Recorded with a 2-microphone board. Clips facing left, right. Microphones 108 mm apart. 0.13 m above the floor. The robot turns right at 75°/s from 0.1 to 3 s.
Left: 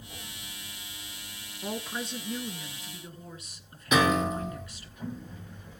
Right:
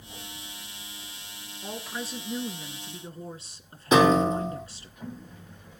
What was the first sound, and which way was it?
A woman speaking, 150° left.